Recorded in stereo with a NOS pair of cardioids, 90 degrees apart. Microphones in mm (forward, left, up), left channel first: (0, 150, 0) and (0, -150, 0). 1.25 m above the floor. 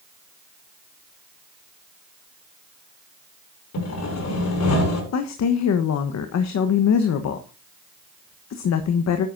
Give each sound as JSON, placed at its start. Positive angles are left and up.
{"t": 3.7, "sound": "sawing", "azimuth_deg": 65, "distance_m": 6.5}
{"t": 5.1, "sound": "a woman speaking", "azimuth_deg": 60, "distance_m": 1.2}